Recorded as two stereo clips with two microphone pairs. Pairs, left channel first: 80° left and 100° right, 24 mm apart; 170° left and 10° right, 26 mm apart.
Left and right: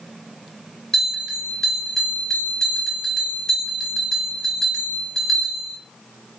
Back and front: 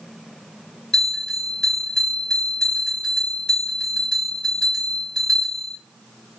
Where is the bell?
130° left, 2.0 m.